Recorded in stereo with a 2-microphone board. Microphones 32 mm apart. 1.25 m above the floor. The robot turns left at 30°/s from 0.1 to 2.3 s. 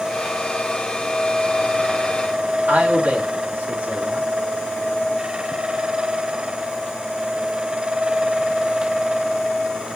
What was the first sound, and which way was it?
A man speaking, 65° right (ahead or behind).